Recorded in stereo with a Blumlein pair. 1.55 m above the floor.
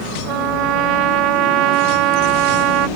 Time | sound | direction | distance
0.3 | a trumpet | 40° right | ?